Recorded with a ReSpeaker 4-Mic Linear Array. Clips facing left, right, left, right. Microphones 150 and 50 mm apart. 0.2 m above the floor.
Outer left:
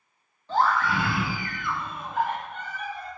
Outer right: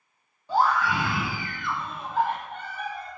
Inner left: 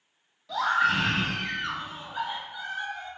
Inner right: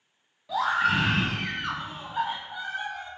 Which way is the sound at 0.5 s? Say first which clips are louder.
Outer right 1 dB, even; 10° right (ahead or behind).